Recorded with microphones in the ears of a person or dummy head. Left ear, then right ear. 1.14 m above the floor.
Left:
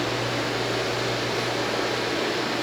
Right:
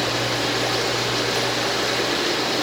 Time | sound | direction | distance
0.0 | running water | 50° right (ahead or behind) | 1.9 m